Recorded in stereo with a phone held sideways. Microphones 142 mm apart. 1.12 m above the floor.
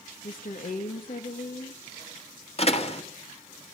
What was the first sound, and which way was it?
A woman speaking, 70° left (ahead or behind).